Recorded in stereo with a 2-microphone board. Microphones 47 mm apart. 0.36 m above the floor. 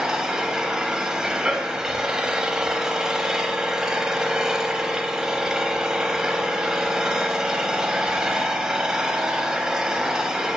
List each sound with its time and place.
0.0 s an engine running: 15° right (ahead or behind), 0.7 m